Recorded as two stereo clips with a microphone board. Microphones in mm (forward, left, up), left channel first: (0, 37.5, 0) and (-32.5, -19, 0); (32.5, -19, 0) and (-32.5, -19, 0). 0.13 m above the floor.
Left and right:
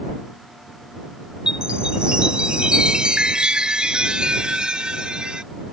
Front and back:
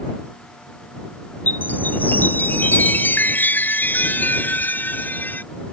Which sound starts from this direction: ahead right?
A chime, at 1.5 s.